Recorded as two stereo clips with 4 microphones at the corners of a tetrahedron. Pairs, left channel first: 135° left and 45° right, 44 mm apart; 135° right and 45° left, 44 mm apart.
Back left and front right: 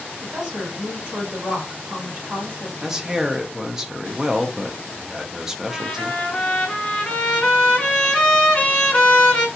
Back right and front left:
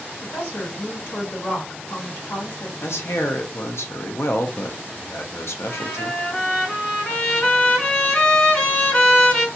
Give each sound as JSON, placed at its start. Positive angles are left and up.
{"t": 0.2, "sound": "a woman speaking", "azimuth_deg": -115, "distance_m": 1.8}
{"t": 2.8, "sound": "a man speaking", "azimuth_deg": -125, "distance_m": 0.5}
{"t": 5.7, "sound": "a trumpet", "azimuth_deg": 170, "distance_m": 1.5}